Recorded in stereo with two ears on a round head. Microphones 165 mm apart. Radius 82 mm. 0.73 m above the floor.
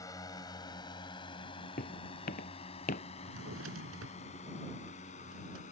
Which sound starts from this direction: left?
Footsteps, at 1.8 s.